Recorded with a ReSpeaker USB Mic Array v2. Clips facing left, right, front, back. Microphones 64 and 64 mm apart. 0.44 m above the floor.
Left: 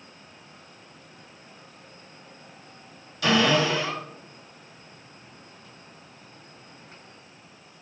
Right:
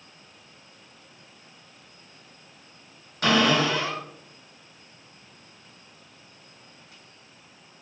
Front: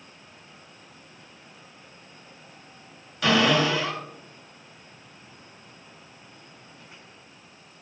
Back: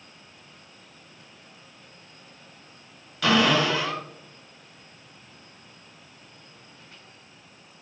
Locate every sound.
3.2 s a cupboard door: 85° right, 1.9 m